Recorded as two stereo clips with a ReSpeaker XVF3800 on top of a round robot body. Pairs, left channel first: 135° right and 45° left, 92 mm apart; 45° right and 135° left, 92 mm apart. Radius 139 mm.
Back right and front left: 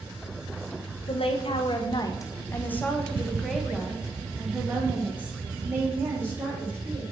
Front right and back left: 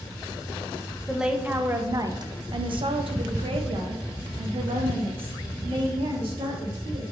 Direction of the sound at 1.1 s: 140° right.